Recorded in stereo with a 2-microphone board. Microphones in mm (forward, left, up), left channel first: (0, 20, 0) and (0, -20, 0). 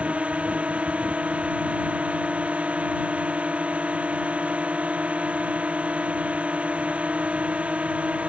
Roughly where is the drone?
Right.